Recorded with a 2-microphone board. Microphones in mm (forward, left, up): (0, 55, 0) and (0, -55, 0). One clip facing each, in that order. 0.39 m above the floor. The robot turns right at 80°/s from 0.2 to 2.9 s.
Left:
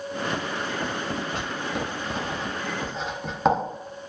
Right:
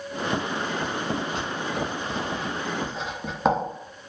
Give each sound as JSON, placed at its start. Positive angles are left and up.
{"t": 1.3, "sound": "writing", "side_deg": 55, "distance_m": 0.6}